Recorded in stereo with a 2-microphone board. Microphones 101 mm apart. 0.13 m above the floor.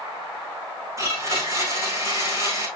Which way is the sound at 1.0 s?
30° right (ahead or behind).